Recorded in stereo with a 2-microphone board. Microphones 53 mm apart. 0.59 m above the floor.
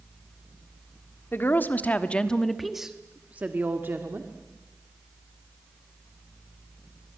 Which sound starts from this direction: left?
A woman speaking, at 1.3 s.